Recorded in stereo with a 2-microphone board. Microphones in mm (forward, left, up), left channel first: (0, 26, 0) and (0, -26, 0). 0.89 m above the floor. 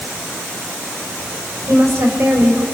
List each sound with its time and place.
1.7 s a woman speaking: 65° right (ahead or behind), 4.5 m